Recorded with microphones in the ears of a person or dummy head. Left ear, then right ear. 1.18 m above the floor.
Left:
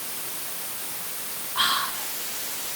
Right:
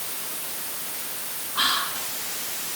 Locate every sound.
1.6 s whispering: 20° left (ahead or behind), 6 m